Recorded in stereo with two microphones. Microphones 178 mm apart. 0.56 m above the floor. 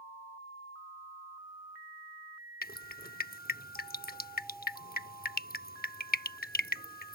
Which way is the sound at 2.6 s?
60° left (ahead or behind).